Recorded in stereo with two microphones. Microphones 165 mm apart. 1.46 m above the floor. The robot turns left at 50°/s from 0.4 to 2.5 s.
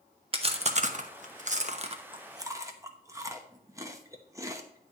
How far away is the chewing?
About 0.9 m.